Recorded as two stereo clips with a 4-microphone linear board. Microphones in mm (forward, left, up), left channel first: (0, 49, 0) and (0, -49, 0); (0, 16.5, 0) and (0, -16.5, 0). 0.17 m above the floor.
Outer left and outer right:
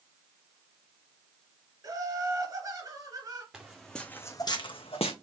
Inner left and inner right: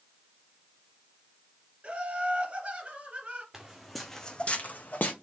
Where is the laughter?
40° right (ahead or behind), 2.5 m.